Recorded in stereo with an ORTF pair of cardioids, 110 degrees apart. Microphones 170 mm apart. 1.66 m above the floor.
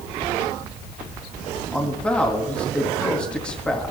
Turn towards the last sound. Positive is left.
turn(degrees=5)